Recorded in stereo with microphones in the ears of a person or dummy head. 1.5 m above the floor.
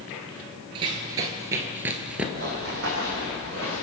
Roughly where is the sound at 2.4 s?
Right.